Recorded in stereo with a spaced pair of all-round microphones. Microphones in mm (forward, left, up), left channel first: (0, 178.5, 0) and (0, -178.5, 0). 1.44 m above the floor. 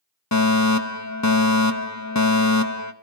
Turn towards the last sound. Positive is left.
turn(degrees=50)  # may be behind; listen again after turning